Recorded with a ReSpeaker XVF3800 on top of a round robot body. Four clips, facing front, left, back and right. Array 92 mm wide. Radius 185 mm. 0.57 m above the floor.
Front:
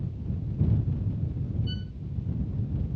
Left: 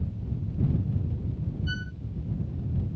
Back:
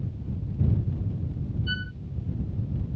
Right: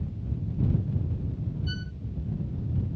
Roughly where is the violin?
Behind left.